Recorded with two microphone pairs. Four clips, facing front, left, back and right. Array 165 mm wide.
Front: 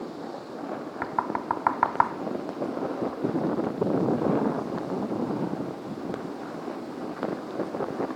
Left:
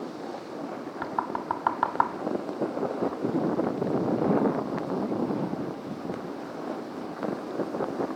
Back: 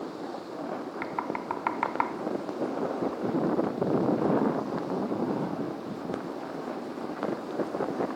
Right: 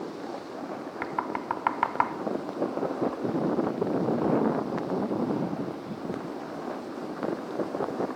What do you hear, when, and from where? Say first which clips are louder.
1.0 s knocking: left 1 dB, front 6 dB; 15° left, 0.9 m